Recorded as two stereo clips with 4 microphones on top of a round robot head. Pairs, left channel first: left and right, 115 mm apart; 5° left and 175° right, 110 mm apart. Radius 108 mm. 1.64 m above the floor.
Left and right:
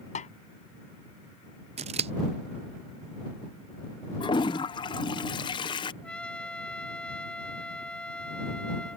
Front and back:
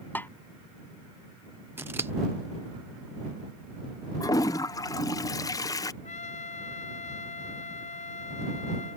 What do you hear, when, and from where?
0.1 s a snare drum: 75° left
1.8 s scissors: 100° right
4.2 s a toilet flushing: 55° left
6.0 s a trumpet: 10° left